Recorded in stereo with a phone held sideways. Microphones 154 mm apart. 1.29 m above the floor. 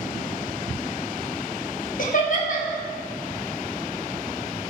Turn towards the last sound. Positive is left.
turn(degrees=60)  # may be behind; listen again after turning